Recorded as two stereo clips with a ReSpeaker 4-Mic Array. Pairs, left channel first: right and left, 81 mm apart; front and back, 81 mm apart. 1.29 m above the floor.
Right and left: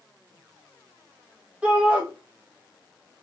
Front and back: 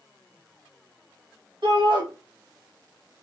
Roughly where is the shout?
Behind.